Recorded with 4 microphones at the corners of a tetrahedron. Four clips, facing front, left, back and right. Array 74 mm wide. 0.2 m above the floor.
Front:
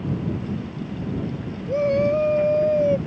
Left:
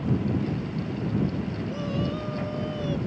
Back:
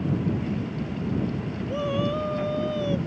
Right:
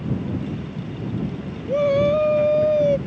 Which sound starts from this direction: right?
A shout, at 1.7 s.